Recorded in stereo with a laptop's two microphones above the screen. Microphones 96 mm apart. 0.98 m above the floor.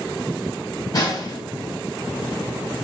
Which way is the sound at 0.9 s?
45° left (ahead or behind).